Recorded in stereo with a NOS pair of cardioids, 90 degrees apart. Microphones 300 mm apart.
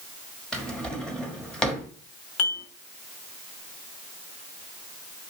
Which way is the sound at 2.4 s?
45° left.